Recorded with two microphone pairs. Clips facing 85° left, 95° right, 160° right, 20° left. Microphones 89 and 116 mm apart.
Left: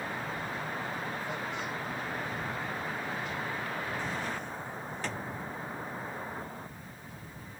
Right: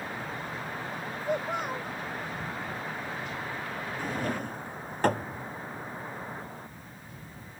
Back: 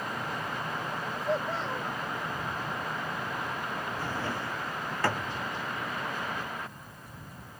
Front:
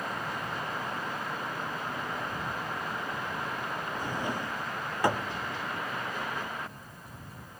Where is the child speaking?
140° right.